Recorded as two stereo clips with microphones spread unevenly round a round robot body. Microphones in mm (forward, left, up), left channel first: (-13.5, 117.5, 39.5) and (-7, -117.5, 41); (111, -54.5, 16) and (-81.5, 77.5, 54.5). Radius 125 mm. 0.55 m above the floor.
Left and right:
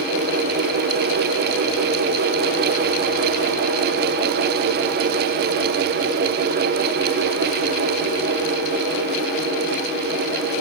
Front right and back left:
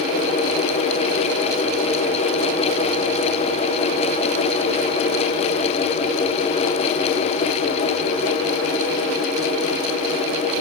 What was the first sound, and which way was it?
Only background noise.